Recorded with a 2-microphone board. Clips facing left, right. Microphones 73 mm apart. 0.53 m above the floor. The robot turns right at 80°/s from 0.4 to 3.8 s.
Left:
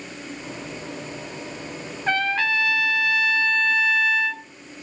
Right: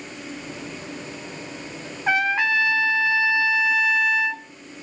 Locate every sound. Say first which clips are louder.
2.1 s a trumpet: right 2 dB; 10° right (ahead or behind), 0.8 m; by 4.5 s 5° right (ahead or behind), 0.8 m